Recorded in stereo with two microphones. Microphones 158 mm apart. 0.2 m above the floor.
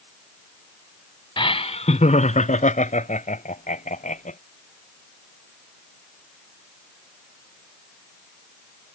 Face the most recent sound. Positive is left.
turn(degrees=55)  # may be behind; listen again after turning